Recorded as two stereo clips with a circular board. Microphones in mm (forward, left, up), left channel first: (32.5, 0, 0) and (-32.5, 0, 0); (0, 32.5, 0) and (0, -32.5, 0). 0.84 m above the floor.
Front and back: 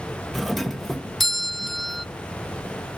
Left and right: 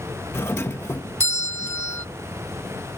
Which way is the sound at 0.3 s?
85° left.